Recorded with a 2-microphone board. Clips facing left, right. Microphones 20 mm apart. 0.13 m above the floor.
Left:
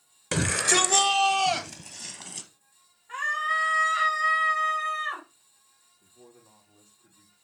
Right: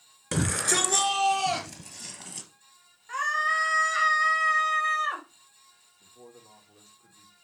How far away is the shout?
About 1.6 m.